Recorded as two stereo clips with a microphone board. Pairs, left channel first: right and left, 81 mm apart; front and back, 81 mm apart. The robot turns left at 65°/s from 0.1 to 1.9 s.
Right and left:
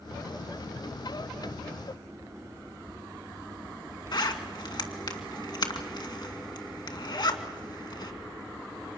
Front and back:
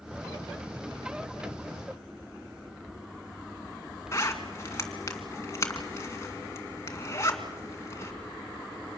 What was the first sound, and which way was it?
A zipper, 55° right.